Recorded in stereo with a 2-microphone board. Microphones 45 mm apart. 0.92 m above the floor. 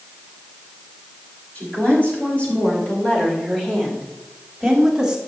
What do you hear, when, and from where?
1.6 s a woman speaking: 35° left (ahead or behind), 5 m; by 5.2 s 10° right (ahead or behind), 2.5 m